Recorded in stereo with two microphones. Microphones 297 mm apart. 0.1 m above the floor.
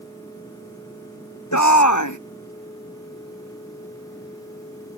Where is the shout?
75° left (ahead or behind).